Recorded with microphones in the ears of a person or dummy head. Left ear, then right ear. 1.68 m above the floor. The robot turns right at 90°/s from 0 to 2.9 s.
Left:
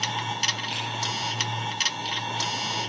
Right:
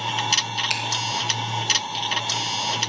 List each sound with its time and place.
0.7 s a finger snap: 65° right (ahead or behind), 1.5 m; by 0.8 s 60° right (ahead or behind), 1.5 m